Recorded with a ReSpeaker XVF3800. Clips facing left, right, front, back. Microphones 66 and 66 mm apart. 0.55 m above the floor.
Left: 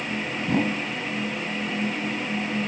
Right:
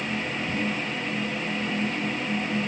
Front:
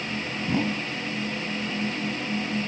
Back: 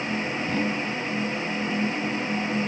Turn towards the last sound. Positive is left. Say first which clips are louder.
# left 7 dB, front 2 dB
turn(degrees=75)